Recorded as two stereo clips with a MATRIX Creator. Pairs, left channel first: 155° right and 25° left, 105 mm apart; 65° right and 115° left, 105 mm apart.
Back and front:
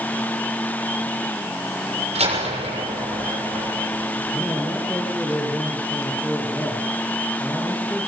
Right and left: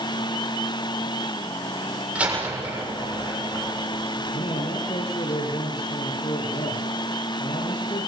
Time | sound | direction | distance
2.1 | a door slam | 35° left | 7 m
4.3 | a man speaking | 80° right | 5 m